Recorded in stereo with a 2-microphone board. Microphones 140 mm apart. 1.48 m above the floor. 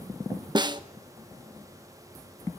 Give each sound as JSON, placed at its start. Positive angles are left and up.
{"t": 0.6, "sound": "a snare drum", "side_deg": -30, "distance_m": 1.0}